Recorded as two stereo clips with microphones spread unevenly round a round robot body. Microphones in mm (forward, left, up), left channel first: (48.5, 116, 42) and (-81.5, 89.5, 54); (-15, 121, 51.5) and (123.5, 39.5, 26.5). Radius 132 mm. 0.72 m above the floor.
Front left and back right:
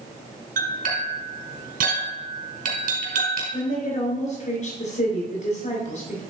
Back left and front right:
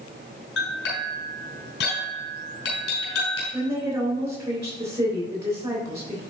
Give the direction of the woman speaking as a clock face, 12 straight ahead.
11 o'clock.